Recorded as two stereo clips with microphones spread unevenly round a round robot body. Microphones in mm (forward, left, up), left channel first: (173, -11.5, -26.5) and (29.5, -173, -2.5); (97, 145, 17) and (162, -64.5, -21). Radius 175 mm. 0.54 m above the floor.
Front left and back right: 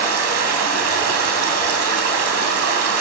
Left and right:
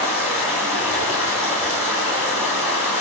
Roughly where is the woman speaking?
I don't hear a woman speaking.